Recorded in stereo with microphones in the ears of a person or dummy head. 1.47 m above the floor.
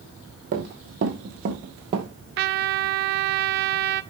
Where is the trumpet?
55° right (ahead or behind), 0.6 m.